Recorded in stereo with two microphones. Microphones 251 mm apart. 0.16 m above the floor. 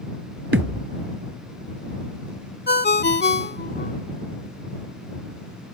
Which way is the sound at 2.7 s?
45° left (ahead or behind).